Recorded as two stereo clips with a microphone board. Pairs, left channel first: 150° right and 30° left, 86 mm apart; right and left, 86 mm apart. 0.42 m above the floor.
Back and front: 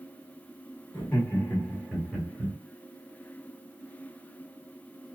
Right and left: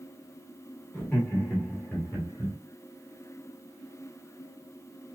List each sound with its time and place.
0.9 s laughter: 140° right, 1.3 m; by 2.5 s 50° right, 1.4 m